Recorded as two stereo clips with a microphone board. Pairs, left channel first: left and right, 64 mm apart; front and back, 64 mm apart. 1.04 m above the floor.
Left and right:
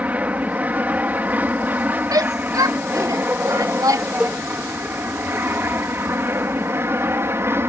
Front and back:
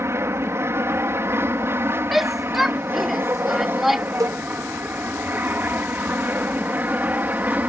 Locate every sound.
0.0 s an aircraft: 150° right; by 7.7 s 125° right
2.1 s a shout: 90° right
4.2 s a cowbell: 165° right